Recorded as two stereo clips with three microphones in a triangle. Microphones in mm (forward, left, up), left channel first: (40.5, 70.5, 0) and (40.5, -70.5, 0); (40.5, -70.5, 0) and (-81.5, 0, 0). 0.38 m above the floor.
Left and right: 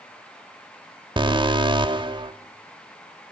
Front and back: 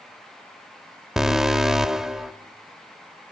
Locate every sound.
1.2 s an alarm: 125° right, 0.9 m